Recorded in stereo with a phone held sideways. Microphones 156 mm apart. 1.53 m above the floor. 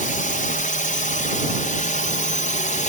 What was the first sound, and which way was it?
A drone, 55° left (ahead or behind).